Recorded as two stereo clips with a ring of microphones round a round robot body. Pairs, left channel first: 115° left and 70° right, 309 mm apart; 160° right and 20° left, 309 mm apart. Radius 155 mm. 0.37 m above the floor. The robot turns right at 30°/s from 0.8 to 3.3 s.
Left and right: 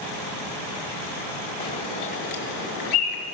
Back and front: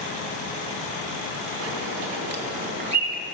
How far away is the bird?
About 1.7 m.